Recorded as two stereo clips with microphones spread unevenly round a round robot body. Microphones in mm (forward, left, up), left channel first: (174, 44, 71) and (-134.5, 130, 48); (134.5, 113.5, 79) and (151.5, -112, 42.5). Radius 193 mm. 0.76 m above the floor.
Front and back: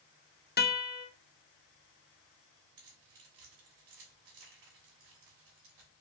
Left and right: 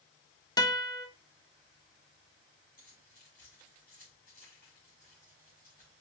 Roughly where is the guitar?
Ahead.